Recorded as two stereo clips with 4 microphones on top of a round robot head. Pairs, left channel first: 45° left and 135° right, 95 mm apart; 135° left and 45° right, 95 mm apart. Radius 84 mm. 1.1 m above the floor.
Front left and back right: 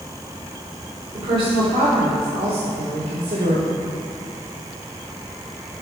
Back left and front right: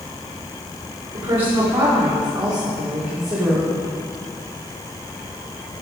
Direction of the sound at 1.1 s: 85° right.